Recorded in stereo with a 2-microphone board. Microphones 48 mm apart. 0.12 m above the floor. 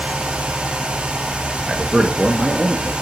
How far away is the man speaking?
About 2.0 m.